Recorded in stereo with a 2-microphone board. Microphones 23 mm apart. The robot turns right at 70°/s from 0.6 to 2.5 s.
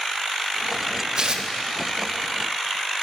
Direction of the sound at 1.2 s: 40° right (ahead or behind).